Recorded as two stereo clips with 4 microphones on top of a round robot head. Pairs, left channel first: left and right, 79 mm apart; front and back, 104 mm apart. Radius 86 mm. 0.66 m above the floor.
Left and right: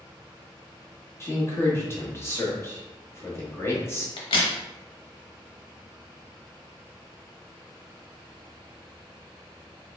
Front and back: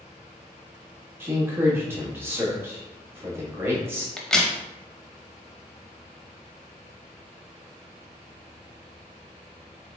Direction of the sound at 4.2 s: 80° left.